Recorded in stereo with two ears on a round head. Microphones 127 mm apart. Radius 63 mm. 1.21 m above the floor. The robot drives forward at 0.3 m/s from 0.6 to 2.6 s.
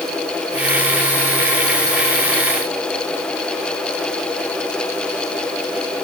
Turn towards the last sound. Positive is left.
No sound to turn to.